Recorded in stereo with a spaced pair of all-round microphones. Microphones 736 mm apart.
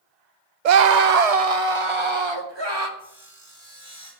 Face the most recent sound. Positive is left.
turn(degrees=-45)  # may be behind; listen again after turning